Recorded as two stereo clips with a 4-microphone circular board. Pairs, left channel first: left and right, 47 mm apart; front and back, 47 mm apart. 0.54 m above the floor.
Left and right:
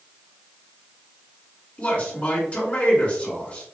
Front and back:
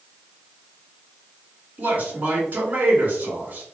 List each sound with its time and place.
1.8 s a man speaking: 150° left, 1.5 m